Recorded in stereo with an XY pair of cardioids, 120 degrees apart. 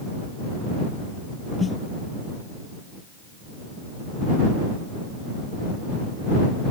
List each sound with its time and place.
1.6 s a snare drum: 30° left